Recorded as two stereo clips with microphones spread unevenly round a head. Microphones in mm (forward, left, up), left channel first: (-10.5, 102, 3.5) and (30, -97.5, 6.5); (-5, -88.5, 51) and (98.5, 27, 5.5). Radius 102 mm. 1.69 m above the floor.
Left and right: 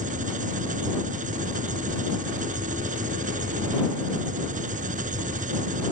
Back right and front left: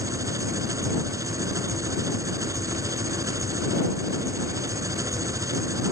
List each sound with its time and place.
0.0 s an engine running: 25° right